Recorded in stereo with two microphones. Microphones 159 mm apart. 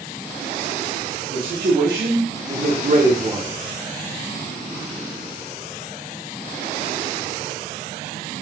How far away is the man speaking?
About 1.3 m.